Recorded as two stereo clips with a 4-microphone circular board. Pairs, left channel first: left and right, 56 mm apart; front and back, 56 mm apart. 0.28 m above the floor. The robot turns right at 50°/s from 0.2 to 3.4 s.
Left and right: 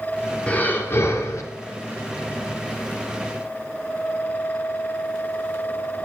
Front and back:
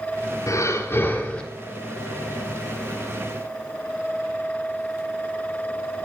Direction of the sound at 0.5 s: 25° left.